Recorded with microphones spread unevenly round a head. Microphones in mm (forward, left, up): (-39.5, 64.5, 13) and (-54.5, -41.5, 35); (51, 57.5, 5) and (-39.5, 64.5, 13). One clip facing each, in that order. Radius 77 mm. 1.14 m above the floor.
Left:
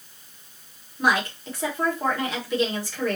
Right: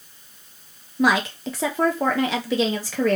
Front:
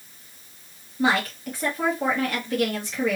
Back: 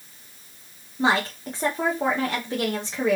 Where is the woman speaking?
110° right, 1.0 m.